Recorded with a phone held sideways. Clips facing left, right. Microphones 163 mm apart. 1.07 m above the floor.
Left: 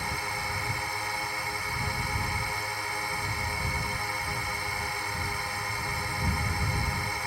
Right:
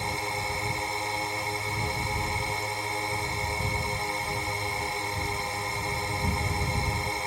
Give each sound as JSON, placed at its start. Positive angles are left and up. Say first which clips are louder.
{"t": 0.0, "sound": "a drone", "louder": "right 3 dB", "side_deg": -20}